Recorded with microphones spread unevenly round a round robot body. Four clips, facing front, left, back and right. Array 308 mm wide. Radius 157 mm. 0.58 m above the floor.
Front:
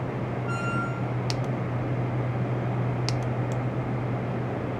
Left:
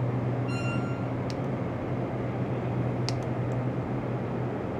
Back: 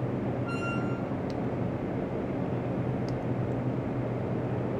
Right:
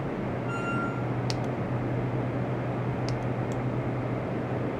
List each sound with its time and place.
0.5 s a squeak: 120° left, 1.7 m